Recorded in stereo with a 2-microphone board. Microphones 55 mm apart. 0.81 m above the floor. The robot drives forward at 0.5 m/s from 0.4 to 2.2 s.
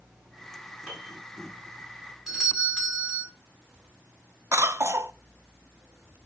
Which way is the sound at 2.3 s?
Centre (ahead or behind).